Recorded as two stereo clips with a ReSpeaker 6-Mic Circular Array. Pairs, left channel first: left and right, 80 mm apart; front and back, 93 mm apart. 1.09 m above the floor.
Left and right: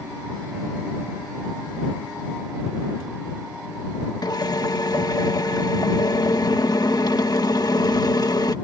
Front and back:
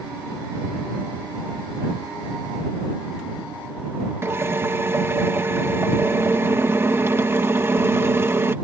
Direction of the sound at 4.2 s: 115° left.